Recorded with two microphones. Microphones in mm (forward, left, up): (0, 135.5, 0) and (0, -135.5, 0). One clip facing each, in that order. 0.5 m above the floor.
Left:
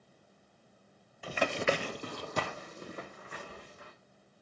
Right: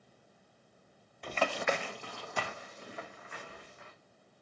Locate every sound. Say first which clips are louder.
1.2 s running footsteps: left 2 dB; 5° left (ahead or behind), 0.6 m; by 3.9 s 40° left (ahead or behind), 2.5 m